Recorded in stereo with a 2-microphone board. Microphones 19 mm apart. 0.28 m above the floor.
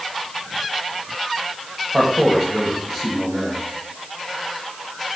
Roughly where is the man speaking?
Right.